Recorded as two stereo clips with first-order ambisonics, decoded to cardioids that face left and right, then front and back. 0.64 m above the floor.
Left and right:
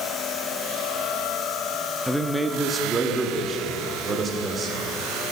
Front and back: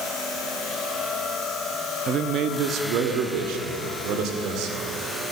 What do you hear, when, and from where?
2.1 s a man speaking: 175° left, 0.8 m; by 4.9 s 155° right, 2 m